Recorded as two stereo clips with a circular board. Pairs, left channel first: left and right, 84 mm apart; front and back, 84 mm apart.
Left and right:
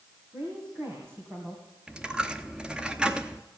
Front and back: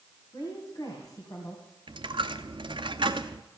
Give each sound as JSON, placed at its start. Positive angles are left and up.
{"t": 0.3, "sound": "a woman speaking", "azimuth_deg": -35, "distance_m": 3.0}
{"t": 1.9, "sound": "a dropped coin", "azimuth_deg": -170, "distance_m": 0.7}